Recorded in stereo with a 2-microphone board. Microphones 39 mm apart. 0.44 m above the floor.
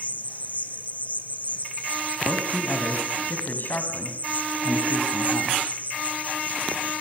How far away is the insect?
About 1.5 m.